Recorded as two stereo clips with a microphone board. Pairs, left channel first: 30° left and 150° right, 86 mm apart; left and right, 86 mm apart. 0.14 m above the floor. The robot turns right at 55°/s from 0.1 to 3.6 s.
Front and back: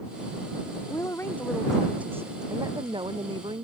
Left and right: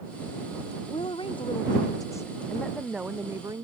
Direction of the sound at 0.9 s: 75° left.